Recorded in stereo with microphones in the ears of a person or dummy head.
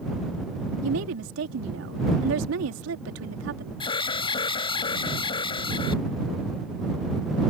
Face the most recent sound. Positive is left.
turn(degrees=30)  # may be behind; listen again after turning